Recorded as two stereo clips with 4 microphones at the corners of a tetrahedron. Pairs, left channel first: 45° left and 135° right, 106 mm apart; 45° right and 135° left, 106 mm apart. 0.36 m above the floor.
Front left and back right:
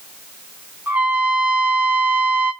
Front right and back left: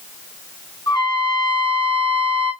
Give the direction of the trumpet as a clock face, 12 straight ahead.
2 o'clock.